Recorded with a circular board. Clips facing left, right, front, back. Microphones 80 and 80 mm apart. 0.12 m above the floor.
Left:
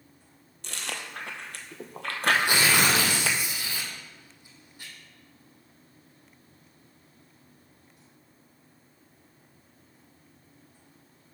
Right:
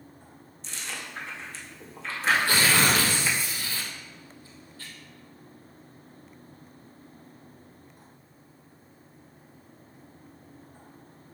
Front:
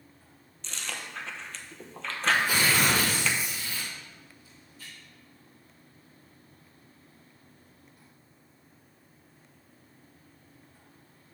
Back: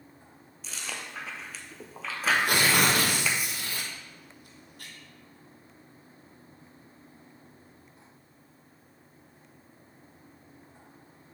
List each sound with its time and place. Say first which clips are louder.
0.6 s chewing: left 2 dB, even; 95° left, 0.9 m
2.3 s tearing paper: even, back 1 dB; 160° left, 1.4 m